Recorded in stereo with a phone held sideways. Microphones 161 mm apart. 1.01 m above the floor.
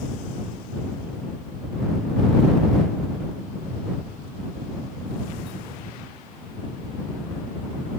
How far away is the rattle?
I don't hear a rattle.